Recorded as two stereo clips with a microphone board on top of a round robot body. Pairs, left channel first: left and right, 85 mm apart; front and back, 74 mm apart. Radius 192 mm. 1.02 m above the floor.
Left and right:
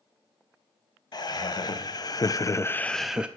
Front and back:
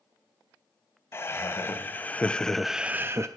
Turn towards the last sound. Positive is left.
turn(degrees=-160)